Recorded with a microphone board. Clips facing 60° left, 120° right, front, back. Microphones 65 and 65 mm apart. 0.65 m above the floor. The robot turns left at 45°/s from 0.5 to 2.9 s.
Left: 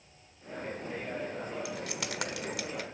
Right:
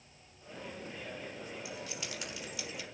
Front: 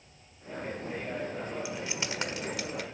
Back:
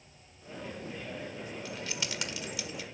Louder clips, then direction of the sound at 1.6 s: Left 6 dB, front 3 dB; 80° left.